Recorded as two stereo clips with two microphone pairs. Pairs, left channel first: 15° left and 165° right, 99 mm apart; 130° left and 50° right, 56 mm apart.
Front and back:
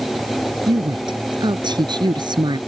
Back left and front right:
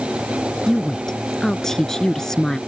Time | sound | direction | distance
0.7 | a woman speaking | 150° right | ?